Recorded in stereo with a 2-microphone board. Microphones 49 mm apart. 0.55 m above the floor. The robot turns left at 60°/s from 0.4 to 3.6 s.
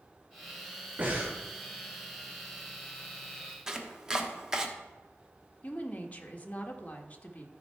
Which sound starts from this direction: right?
Breathing, at 1.0 s.